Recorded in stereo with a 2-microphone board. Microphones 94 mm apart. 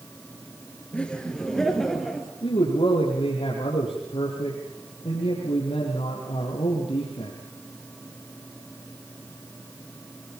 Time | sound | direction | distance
0.9 | laughter | 10° left (ahead or behind) | 3 m
2.4 | a man speaking | 70° left (ahead or behind) | 5 m